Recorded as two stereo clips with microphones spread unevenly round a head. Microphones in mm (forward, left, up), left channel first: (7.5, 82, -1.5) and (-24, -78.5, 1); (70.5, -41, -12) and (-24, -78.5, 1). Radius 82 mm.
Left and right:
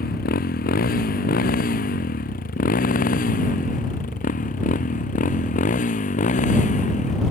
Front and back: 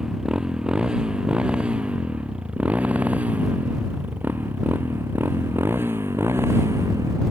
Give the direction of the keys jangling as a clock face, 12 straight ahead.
No keys jangling in this recording.